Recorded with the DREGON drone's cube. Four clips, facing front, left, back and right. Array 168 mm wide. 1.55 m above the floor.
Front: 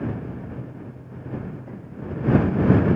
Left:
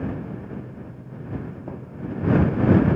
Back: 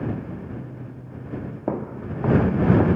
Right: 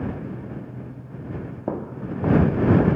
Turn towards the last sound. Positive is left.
turn(degrees=-155)